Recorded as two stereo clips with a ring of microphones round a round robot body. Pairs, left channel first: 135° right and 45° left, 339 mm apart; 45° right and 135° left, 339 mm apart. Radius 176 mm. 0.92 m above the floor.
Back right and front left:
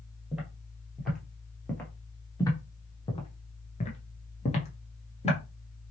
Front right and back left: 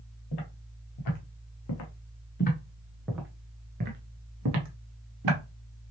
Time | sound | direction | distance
0.3 | footsteps | 45° right | 1.7 m